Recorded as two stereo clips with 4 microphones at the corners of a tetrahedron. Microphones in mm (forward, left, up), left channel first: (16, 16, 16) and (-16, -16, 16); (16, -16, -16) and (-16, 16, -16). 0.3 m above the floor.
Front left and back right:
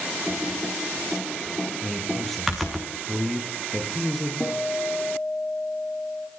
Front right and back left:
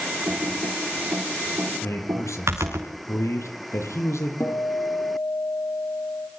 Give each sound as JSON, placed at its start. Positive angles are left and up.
{"t": 0.3, "sound": "typing on a keyboard", "azimuth_deg": 140, "distance_m": 5.5}
{"t": 1.8, "sound": "a man speaking", "azimuth_deg": -45, "distance_m": 7.5}
{"t": 4.4, "sound": "a guitar", "azimuth_deg": -20, "distance_m": 9.0}